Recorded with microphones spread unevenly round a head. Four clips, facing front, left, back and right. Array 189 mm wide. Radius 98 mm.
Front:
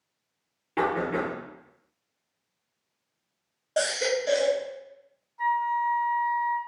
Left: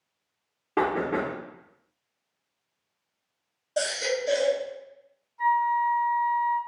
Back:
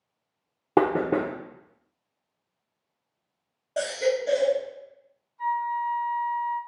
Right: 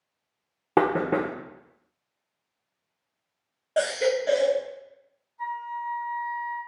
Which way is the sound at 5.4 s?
10° left.